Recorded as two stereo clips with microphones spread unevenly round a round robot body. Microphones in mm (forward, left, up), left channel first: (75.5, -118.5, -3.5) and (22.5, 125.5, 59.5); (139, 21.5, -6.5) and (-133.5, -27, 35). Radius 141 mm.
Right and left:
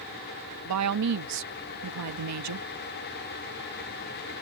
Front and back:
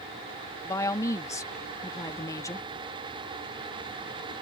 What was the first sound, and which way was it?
A woman speaking, 85° left.